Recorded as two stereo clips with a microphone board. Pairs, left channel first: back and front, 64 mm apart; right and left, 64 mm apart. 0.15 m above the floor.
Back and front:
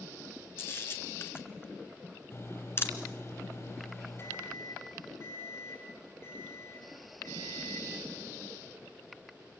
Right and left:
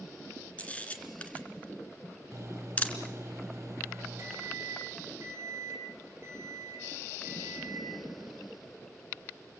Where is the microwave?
135° left, 3.5 m.